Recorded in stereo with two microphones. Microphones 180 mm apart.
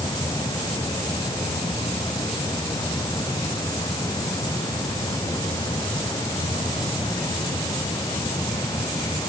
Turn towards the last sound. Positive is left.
No sound to turn to.